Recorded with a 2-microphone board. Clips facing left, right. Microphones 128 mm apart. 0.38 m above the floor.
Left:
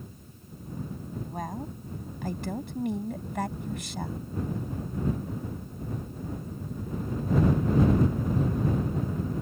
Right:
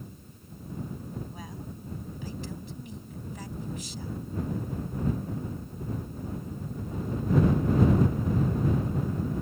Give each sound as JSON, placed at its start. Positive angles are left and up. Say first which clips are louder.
{"t": 1.2, "sound": "a woman speaking", "louder": "left 6 dB", "side_deg": 55}